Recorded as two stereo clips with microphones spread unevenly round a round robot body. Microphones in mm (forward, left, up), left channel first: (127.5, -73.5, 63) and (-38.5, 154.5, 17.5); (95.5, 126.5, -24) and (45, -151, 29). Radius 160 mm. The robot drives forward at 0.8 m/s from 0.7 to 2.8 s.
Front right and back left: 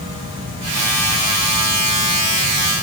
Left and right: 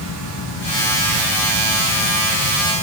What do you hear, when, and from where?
Only background noise.